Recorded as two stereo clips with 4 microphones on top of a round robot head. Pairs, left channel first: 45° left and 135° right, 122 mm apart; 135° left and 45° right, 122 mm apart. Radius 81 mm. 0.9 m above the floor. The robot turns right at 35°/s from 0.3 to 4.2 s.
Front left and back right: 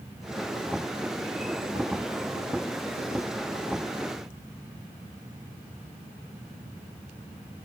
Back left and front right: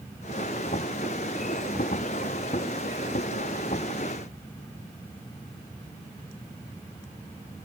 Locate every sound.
Only background noise.